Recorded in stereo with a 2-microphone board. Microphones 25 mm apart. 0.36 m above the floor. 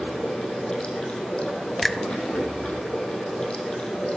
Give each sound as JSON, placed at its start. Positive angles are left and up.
{"t": 0.0, "sound": "running water", "side_deg": 40, "distance_m": 3.0}
{"t": 1.8, "sound": "a finger snap", "side_deg": 5, "distance_m": 0.7}